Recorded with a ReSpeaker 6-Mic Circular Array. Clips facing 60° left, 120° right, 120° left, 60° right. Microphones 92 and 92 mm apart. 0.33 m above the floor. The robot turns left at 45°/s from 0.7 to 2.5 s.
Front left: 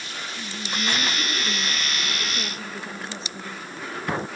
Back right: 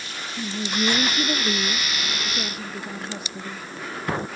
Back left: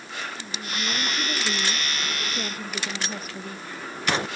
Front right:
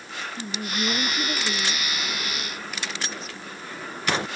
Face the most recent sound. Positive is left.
turn(degrees=165)